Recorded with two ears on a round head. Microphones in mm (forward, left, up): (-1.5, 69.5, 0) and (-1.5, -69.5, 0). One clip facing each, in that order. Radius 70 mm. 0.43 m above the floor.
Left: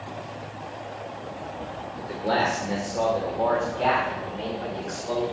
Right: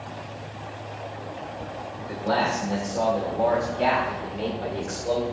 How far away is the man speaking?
About 1.7 m.